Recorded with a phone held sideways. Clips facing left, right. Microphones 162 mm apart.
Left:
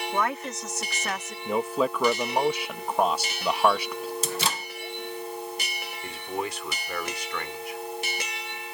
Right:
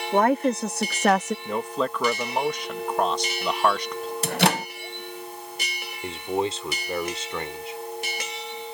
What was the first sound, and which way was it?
A woman speaking, 45° right (ahead or behind).